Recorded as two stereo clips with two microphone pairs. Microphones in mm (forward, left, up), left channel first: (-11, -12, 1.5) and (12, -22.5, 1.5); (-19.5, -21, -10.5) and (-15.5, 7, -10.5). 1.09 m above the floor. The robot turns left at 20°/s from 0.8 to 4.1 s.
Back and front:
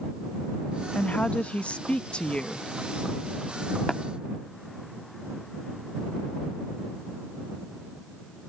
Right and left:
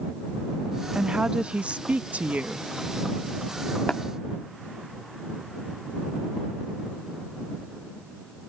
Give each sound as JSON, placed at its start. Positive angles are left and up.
{"t": 0.9, "sound": "a woman speaking", "azimuth_deg": 140}
{"t": 3.9, "sound": "tapping", "azimuth_deg": -135}